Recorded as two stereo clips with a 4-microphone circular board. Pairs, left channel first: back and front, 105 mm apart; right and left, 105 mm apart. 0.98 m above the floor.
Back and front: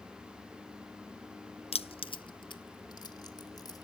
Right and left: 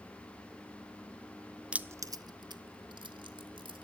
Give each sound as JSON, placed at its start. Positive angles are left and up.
{"t": 1.7, "sound": "keys jangling", "azimuth_deg": 170, "distance_m": 0.5}